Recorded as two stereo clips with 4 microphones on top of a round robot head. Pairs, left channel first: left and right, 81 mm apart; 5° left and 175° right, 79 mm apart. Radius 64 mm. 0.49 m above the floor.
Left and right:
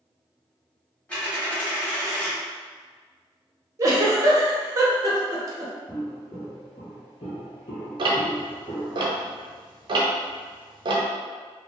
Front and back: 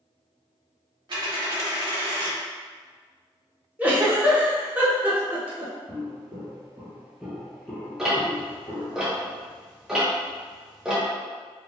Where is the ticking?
90° right, 0.6 m.